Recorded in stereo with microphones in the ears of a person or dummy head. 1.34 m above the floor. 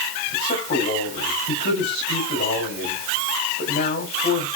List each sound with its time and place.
0.3 s a man speaking: 50° left (ahead or behind), 6.5 m